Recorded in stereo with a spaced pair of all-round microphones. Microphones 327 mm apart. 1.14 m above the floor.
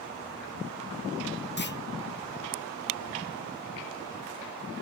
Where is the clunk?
35° left (ahead or behind), 0.8 m.